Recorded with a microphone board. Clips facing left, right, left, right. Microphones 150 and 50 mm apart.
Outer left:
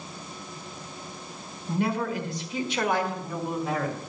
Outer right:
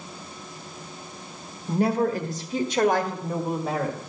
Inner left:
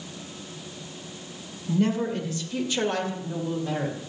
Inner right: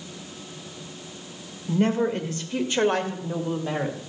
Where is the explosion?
No explosion in this recording.